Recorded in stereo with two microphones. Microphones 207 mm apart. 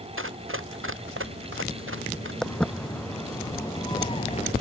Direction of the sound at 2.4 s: 5° left (ahead or behind).